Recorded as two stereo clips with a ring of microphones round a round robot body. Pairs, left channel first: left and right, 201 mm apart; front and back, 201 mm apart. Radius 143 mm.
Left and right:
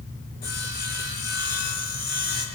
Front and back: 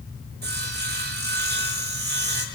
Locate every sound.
0.4 s sawing: 145° left, 6 m